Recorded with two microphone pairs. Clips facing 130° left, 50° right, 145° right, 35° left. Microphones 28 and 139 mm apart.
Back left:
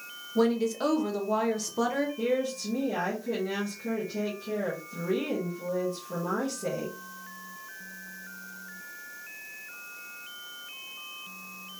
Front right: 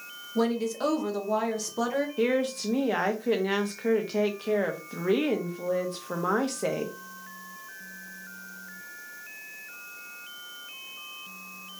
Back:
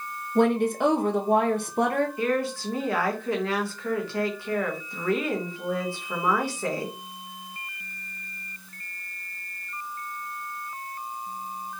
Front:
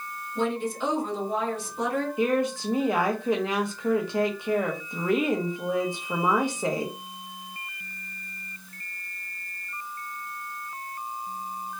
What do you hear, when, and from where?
0.3 s a woman speaking: 145° right, 0.9 m
2.2 s a woman speaking: 40° right, 1.3 m